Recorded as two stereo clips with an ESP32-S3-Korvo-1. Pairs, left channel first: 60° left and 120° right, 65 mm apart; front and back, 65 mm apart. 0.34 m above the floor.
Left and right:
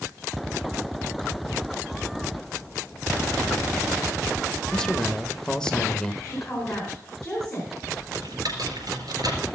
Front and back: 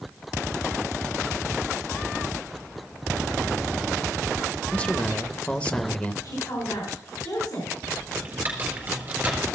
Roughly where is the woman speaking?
Ahead.